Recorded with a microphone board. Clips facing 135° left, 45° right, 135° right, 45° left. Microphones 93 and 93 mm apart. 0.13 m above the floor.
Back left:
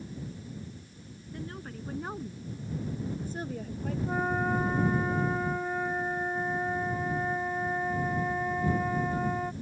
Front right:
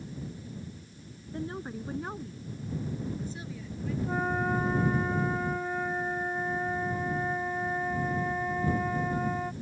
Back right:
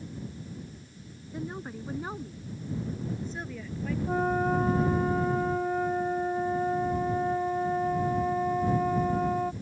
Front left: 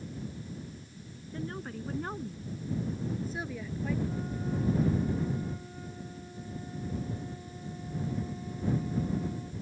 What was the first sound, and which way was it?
A woman speaking, 70° right.